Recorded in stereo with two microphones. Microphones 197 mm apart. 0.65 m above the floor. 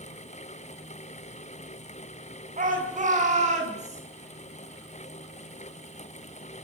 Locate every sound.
2.6 s a shout: 40° right (ahead or behind), 6 m; by 4.0 s 35° right (ahead or behind), 7.5 m